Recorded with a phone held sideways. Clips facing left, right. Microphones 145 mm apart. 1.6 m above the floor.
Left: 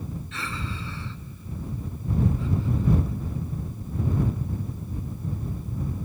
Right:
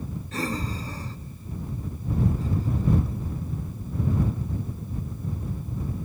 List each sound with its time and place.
0.3 s breathing: 40° right (ahead or behind)